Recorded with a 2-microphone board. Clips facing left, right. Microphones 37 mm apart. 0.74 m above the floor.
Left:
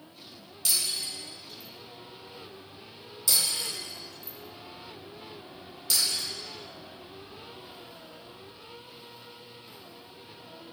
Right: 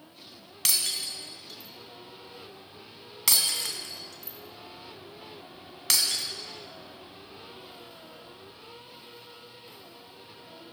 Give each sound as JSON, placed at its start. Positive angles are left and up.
{"t": 0.7, "sound": "breaking glass", "side_deg": -75, "distance_m": 1.5}